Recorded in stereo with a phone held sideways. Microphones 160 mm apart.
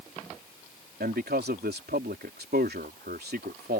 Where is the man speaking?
85° right.